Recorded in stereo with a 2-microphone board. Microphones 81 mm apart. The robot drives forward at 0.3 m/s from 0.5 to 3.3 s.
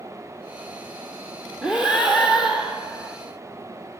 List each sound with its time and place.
1.6 s breathing: 10° right (ahead or behind), 2.5 m